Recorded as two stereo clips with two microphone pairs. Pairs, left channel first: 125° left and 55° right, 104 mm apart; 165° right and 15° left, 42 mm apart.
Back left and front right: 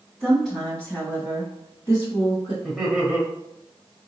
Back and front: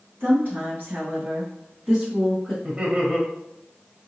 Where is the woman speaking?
30° left, 2.5 m; by 2.5 s 90° left, 2.5 m.